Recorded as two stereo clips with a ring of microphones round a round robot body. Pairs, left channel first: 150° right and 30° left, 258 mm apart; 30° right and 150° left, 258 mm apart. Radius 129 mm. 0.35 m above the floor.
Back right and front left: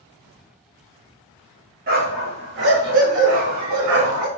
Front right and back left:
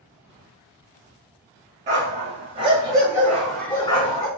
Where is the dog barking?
90° left, 1.7 m; by 4.3 s 30° left, 0.9 m.